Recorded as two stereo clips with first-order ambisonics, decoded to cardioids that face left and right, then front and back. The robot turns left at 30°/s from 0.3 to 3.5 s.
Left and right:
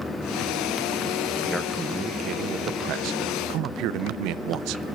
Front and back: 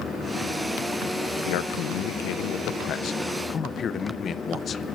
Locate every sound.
1.4 s a man speaking: straight ahead, 0.6 m; by 4.8 s 60° right, 0.6 m